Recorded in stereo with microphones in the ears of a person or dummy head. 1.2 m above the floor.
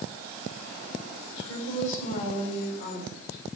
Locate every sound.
1.4 s a woman speaking: 80° left, 3.5 m